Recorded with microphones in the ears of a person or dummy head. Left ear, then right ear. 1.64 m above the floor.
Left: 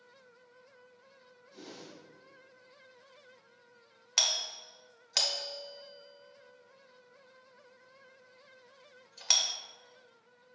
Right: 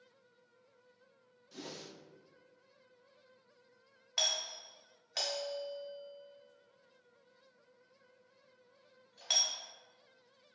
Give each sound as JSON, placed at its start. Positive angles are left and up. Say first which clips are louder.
{"t": 1.5, "sound": "a whoosh", "louder": "right 2 dB", "side_deg": -75, "distance_m": 0.5}
{"t": 4.2, "sound": "a doorbell", "louder": "left 4 dB", "side_deg": 30, "distance_m": 0.6}